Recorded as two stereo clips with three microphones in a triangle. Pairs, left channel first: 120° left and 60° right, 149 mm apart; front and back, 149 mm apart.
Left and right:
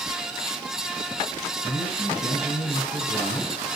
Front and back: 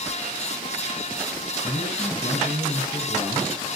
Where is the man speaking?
115° left, 6 m.